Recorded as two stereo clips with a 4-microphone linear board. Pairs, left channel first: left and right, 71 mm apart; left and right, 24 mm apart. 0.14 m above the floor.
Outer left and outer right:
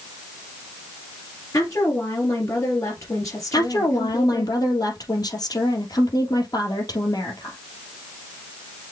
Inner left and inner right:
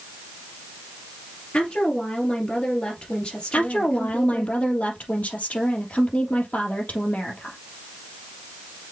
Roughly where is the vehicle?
No vehicle in this recording.